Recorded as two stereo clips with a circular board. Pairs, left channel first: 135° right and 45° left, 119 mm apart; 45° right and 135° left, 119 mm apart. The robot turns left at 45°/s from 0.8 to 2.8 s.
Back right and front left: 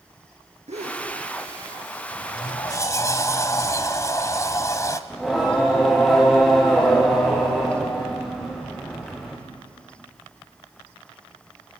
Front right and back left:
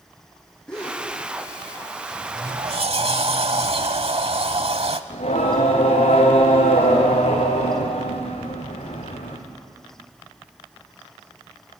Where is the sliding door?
165° right, 1.1 m; by 5.0 s 165° left, 1.1 m.